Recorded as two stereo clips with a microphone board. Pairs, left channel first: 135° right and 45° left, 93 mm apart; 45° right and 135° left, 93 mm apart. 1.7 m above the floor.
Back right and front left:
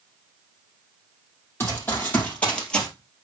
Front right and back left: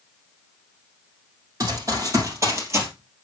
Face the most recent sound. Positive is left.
turn(degrees=150)